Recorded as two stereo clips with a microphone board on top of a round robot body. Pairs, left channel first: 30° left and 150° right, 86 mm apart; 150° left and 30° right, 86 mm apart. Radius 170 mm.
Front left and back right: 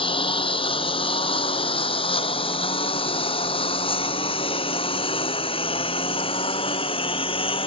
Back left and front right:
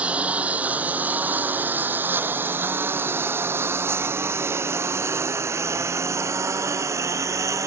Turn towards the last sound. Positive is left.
turn(degrees=25)